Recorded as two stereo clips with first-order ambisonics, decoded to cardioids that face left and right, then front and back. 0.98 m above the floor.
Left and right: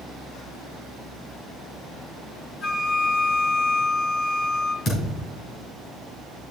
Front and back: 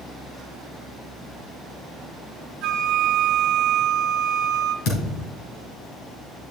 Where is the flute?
150° left, 1.0 m.